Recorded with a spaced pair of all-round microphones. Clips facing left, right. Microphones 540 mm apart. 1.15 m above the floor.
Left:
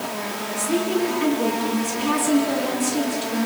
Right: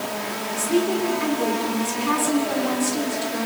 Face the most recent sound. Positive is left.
turn(degrees=55)  # may be behind; listen again after turning